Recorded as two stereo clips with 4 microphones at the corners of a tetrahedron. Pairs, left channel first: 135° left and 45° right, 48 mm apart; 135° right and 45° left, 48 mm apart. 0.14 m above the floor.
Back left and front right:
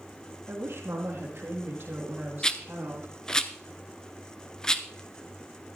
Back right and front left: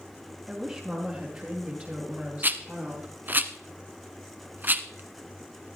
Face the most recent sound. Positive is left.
turn(degrees=65)